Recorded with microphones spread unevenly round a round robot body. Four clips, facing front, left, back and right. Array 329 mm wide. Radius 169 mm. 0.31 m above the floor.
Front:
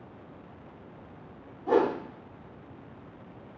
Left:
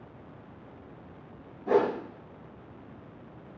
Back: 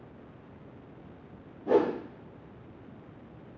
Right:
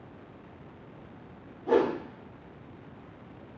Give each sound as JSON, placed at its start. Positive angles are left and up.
{"t": 1.7, "sound": "a whoosh", "azimuth_deg": 145, "distance_m": 3.0}